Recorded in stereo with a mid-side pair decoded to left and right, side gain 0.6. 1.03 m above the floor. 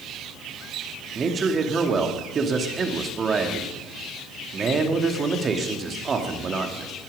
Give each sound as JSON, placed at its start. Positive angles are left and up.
{"t": 1.1, "sound": "a man speaking", "azimuth_deg": -35, "distance_m": 2.0}